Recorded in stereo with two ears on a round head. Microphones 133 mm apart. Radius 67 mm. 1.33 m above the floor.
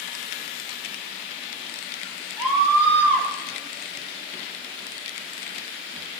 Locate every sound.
2.4 s a scream: 10° right (ahead or behind), 7 m